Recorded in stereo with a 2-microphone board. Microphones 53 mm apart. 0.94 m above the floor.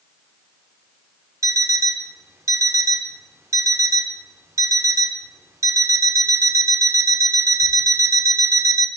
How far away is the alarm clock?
About 1.0 m.